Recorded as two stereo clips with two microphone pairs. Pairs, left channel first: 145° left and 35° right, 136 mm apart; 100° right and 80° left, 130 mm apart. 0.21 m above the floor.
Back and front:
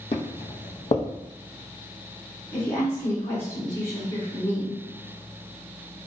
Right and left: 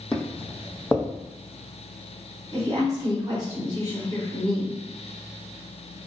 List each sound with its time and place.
0.1 s footsteps: straight behind, 0.5 m
2.5 s a woman speaking: 90° left, 1.7 m